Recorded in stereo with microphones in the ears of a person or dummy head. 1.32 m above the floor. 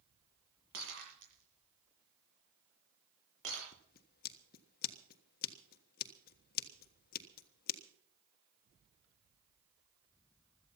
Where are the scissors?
50° left (ahead or behind), 1.4 m.